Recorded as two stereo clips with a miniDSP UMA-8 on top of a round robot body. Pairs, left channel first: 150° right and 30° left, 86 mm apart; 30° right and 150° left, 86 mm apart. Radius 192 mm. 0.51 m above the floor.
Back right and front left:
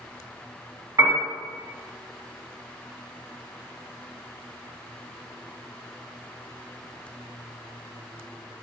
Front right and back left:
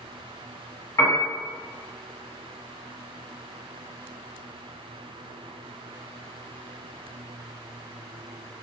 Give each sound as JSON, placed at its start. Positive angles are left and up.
{"t": 1.0, "sound": "a piano", "azimuth_deg": -5, "distance_m": 1.5}